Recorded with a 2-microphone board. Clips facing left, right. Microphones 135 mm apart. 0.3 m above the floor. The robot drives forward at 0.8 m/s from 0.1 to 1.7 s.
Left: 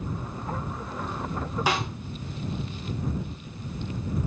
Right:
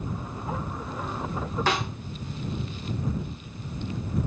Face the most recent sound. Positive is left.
turn(degrees=10)  # may be behind; listen again after turning